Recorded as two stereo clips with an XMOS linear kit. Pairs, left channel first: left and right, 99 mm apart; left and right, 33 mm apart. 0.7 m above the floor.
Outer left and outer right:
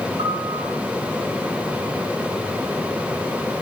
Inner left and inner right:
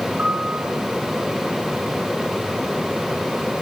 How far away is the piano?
About 4.5 m.